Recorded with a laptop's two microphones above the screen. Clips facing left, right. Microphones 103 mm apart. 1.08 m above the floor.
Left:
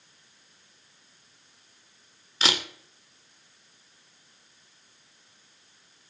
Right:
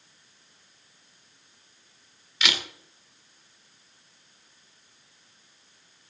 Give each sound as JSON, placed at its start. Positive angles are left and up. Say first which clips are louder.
{"t": 2.4, "sound": "a camera shutter", "louder": "left 2 dB", "side_deg": 35, "distance_m": 2.0}